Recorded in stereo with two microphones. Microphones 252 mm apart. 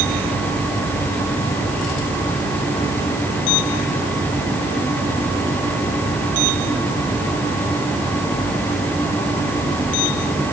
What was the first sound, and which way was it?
Only background noise.